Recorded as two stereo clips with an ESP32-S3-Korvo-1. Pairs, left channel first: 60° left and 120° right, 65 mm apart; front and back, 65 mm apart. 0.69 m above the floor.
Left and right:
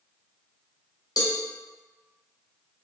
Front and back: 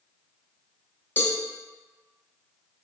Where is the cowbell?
60° left, 0.6 m.